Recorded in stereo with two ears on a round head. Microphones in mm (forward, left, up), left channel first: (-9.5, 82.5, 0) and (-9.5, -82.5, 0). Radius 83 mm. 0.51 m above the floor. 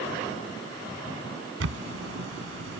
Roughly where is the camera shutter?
Right.